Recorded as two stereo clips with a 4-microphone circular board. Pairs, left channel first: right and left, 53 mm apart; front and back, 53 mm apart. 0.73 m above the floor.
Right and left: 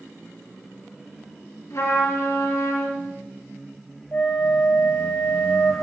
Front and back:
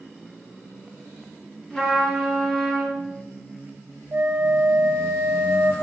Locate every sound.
1.7 s a trumpet: 80° right, 4.5 m
4.1 s a flute: 140° right, 2.5 m